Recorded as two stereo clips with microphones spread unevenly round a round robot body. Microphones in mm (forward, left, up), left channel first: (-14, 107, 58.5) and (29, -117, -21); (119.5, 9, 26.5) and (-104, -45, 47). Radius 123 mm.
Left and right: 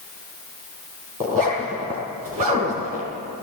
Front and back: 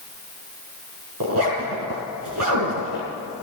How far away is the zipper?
About 4.5 m.